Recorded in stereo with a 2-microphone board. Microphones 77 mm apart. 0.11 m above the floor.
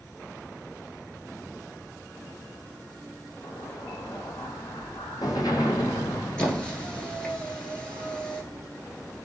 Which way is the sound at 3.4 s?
60° left (ahead or behind).